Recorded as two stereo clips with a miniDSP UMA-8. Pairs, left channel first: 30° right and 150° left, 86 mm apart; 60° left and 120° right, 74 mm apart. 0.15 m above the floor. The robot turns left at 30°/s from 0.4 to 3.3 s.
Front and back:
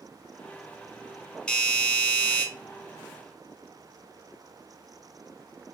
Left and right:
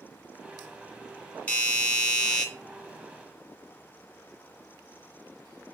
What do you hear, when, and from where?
1.5 s a doorbell: 30° left, 1.7 m; by 2.5 s straight ahead, 1.7 m